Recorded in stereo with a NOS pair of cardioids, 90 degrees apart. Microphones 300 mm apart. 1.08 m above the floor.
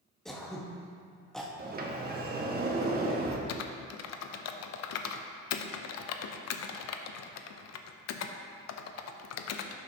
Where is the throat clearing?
Straight ahead, 1.1 m.